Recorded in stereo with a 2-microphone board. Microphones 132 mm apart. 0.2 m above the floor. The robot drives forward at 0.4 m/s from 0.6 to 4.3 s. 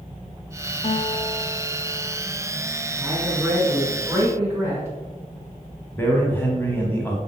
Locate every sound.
0.8 s a guitar: 55° left (ahead or behind), 0.7 m
3.0 s a man speaking: 20° right (ahead or behind), 2.0 m
6.0 s a man speaking: 15° left (ahead or behind), 1.2 m